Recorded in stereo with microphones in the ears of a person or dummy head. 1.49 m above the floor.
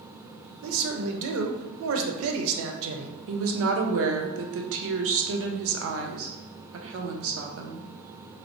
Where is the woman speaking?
70° right (ahead or behind), 0.5 m.